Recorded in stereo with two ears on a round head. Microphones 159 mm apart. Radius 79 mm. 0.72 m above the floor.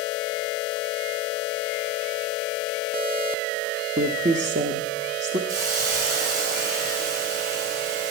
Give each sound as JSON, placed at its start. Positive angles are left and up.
{"t": 4.0, "sound": "a woman speaking", "side_deg": -40, "distance_m": 0.9}
{"t": 5.5, "sound": "a hiss", "side_deg": -50, "distance_m": 4.5}